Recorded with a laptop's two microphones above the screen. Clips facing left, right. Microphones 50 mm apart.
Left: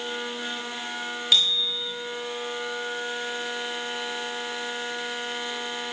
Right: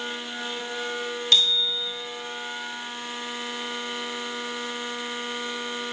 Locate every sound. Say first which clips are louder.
1.3 s a bicycle bell: right 1 dB; 5° left (ahead or behind), 3.5 m